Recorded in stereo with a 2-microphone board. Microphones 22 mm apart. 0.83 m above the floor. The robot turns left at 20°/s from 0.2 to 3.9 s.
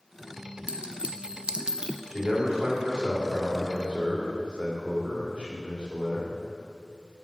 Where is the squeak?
No squeak in this recording.